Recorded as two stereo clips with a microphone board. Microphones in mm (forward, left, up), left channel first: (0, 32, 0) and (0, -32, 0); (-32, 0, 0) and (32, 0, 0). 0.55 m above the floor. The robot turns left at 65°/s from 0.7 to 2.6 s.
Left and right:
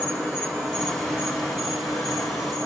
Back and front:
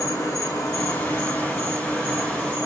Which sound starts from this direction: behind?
An insect, at 0.0 s.